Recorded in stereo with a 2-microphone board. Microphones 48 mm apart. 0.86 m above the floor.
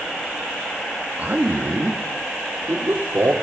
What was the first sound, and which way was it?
A man speaking, 35° right (ahead or behind).